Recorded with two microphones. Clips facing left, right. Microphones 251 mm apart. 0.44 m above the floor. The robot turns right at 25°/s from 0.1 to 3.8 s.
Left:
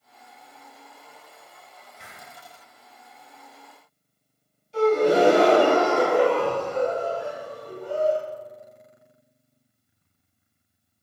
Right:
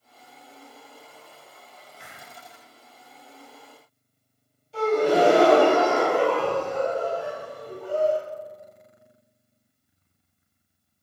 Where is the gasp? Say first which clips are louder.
Left 2 dB; centre (ahead or behind), 1.8 m.